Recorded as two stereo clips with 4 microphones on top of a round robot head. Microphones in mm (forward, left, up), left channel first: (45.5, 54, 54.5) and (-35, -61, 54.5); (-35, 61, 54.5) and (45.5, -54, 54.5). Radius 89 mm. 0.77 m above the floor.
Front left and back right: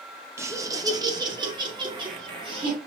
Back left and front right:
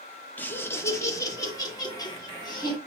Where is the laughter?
170° right, 0.9 m; by 2.8 s 175° right, 1.9 m.